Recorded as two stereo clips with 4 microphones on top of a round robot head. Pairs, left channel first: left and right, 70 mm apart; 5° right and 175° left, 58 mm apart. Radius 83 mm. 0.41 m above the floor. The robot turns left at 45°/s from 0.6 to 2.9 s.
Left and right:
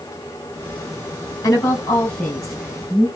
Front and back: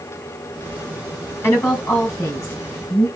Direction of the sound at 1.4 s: 45° left.